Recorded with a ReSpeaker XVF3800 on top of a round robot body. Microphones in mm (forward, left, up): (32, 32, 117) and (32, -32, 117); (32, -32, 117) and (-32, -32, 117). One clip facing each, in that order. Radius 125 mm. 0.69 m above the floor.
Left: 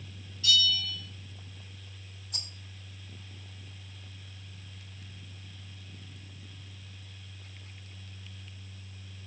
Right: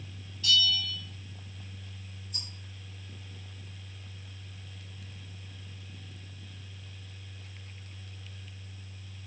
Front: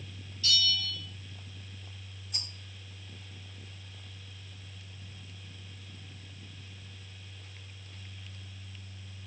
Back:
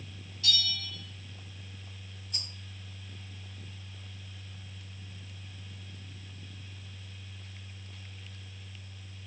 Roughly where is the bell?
Behind right.